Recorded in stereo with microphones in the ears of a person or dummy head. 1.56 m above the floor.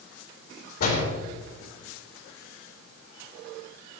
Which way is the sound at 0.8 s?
55° left (ahead or behind).